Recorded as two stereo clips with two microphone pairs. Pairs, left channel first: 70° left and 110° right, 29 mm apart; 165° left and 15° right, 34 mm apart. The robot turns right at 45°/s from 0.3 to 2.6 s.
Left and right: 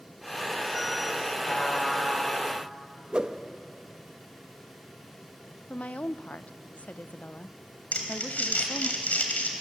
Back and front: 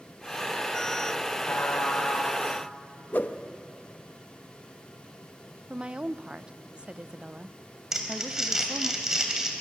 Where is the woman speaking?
45° left, 0.6 m.